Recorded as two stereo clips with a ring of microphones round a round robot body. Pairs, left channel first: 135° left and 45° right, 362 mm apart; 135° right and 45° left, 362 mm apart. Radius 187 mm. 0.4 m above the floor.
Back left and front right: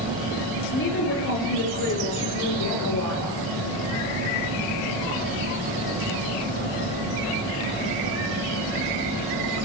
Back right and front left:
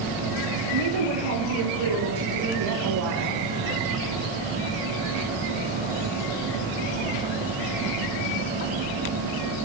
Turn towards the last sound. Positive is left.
turn(degrees=90)